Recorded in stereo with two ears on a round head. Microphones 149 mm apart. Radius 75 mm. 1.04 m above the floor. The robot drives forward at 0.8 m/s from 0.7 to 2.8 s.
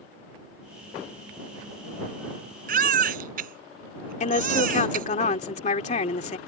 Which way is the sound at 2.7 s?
60° right (ahead or behind).